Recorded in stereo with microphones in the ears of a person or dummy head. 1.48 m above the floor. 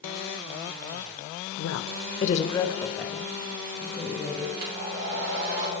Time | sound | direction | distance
1.6 | a woman speaking | 70° left (ahead or behind) | 0.7 m
4.6 | a hair dryer | 60° right (ahead or behind) | 4 m